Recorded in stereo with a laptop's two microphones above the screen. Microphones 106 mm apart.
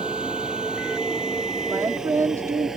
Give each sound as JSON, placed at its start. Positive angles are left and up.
{"t": 0.0, "sound": "a vehicle", "side_deg": -10}
{"t": 1.7, "sound": "a woman speaking", "side_deg": -30}